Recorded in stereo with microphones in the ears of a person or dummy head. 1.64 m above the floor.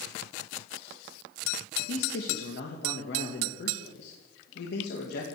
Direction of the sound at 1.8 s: 65° left (ahead or behind).